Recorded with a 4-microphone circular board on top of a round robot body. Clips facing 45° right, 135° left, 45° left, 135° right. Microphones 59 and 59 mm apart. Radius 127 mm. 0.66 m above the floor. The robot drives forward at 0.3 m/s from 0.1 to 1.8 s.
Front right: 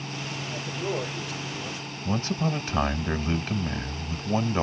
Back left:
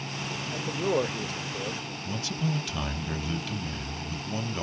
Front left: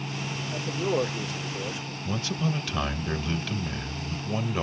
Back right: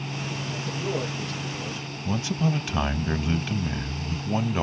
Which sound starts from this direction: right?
A man speaking, at 2.0 s.